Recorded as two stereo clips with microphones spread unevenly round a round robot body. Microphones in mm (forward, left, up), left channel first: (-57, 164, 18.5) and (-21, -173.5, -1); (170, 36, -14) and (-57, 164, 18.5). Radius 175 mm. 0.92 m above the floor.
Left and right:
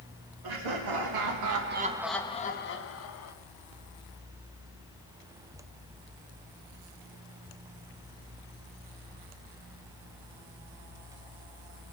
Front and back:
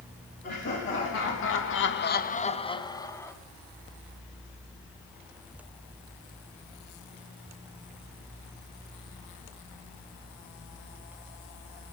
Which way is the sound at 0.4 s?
90° right.